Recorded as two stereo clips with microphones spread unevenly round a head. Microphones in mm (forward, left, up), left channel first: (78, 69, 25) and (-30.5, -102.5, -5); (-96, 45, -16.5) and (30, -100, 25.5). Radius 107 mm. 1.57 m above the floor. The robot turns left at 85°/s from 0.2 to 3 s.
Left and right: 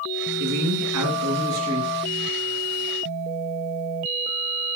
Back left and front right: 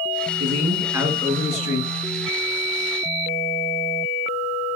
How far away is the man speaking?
About 2 m.